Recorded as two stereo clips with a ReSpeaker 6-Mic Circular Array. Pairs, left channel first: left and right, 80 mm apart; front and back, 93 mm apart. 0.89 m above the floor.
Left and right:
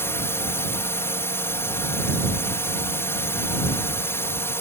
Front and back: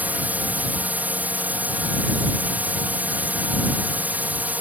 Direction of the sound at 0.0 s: 120° left.